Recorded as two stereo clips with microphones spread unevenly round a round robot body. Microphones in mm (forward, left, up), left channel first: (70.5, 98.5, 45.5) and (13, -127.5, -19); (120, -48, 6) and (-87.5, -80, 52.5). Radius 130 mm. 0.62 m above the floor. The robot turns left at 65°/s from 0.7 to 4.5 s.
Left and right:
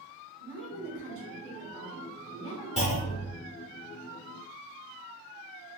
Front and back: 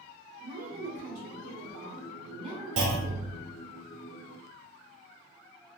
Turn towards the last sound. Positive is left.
turn(degrees=30)